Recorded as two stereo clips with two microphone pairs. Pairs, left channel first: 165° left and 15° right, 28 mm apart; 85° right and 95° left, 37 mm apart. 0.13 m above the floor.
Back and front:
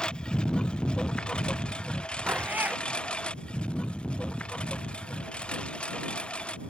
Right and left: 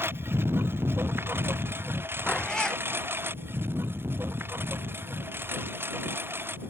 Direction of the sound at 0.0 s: 110° left.